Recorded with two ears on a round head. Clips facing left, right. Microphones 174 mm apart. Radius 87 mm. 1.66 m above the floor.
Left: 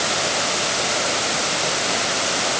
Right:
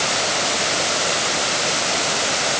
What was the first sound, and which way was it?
Only background noise.